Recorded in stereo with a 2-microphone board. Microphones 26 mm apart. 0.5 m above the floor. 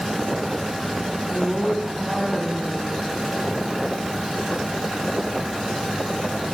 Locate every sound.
1.3 s a woman speaking: 15° right (ahead or behind), 4 m